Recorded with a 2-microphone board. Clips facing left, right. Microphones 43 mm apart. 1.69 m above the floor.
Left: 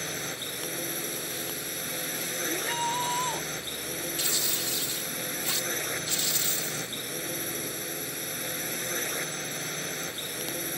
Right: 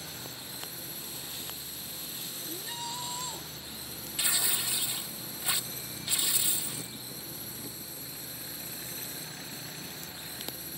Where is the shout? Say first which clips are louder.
Left 10 dB; 35° left (ahead or behind).